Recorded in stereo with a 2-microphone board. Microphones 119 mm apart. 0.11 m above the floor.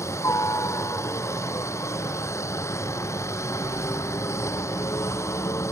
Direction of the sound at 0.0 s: 20° left (ahead or behind).